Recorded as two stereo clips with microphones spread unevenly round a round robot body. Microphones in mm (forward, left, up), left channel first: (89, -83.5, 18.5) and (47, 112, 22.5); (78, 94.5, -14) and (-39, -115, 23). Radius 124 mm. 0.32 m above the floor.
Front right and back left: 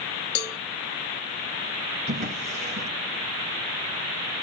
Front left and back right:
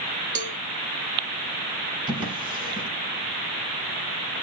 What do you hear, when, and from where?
0.3 s a cowbell: 55° right, 0.6 m
2.1 s a drawer: 165° left, 1.7 m